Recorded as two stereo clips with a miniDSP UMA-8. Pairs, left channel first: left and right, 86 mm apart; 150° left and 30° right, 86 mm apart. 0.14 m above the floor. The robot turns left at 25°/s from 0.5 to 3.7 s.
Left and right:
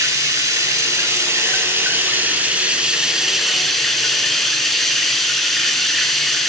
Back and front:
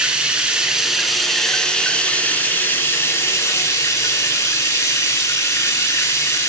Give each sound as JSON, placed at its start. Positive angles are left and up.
{"t": 0.0, "sound": "running water", "azimuth_deg": -105, "distance_m": 0.9}